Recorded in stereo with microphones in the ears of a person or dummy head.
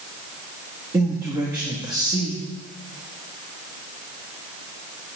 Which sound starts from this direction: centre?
A man speaking, at 0.9 s.